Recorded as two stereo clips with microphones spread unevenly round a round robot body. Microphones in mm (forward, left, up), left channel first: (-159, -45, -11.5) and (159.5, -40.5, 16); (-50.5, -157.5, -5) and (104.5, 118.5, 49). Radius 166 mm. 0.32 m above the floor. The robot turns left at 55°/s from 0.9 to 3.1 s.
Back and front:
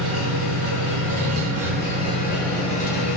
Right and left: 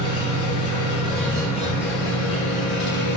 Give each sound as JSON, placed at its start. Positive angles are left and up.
{"t": 0.0, "sound": "an engine running", "azimuth_deg": -10, "distance_m": 4.0}